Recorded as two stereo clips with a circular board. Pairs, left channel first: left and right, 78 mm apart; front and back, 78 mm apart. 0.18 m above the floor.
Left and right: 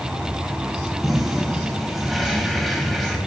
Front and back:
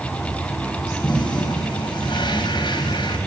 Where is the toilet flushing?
Straight ahead, 5 m.